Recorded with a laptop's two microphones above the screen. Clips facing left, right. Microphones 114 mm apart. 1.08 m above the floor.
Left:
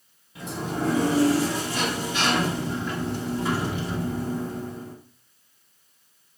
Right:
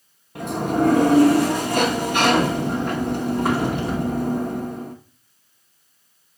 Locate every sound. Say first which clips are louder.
0.3 s a sliding door: right 8 dB; 55° right (ahead or behind), 1.2 m